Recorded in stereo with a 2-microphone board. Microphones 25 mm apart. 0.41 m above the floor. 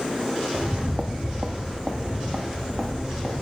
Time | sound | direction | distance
0.5 | footsteps | 45° right (ahead or behind) | 0.5 m